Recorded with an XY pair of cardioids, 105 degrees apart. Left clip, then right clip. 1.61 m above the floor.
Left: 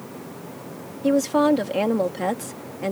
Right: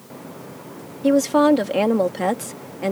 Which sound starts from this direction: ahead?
A woman speaking, at 1.0 s.